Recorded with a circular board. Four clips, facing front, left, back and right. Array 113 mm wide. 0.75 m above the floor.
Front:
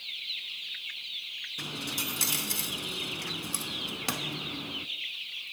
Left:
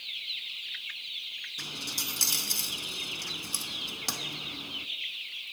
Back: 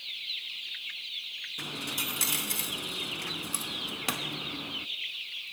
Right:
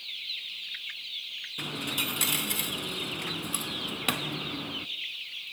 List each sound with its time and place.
1.6 s a dropped coin: 100° right, 0.7 m